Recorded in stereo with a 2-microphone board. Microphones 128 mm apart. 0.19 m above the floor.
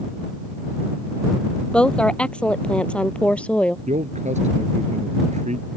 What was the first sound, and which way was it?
A woman speaking, 10° left (ahead or behind).